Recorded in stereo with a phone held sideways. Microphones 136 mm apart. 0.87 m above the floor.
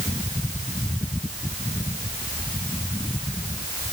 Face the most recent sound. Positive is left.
No sound to turn to.